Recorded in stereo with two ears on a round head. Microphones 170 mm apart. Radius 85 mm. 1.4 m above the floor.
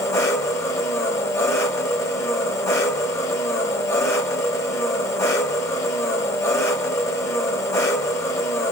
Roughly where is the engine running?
Centre.